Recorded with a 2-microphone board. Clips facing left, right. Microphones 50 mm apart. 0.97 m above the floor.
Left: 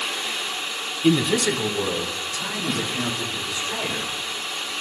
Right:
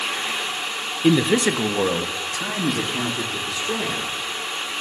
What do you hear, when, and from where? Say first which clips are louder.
1.0 s a man speaking: right 2 dB; 15° right (ahead or behind), 0.7 m; by 4.7 s 50° right (ahead or behind), 4.5 m